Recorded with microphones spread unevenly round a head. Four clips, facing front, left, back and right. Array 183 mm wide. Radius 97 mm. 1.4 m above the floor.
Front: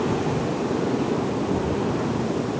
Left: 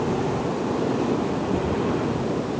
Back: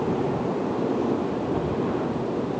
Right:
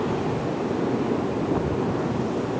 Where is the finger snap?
I don't hear a finger snap.